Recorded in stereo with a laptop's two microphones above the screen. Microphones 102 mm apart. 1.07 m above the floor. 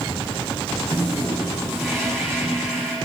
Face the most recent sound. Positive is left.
turn(degrees=5)  # may be behind; listen again after turning